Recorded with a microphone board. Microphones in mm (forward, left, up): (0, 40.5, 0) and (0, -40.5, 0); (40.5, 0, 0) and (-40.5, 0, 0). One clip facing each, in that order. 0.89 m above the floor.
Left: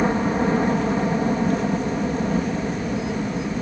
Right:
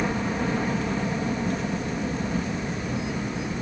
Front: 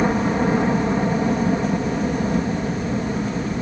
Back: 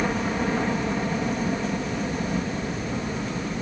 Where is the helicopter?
50° left.